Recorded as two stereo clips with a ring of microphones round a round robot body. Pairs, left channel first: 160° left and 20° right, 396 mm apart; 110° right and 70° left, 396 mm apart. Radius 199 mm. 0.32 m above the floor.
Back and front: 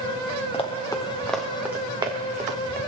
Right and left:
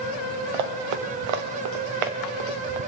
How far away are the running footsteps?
About 2.5 m.